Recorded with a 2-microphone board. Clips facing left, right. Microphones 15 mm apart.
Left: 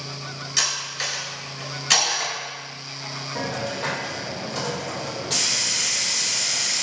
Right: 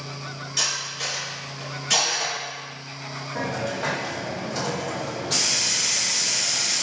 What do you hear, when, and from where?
0.6 s cutlery clinking: 65° left (ahead or behind), 1.4 m
3.4 s a hiss: 15° left (ahead or behind), 1.8 m